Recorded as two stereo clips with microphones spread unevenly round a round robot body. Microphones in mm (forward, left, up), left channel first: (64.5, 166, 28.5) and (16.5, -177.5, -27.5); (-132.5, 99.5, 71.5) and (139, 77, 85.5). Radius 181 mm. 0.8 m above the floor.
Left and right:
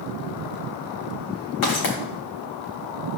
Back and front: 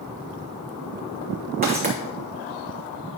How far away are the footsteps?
About 3.5 m.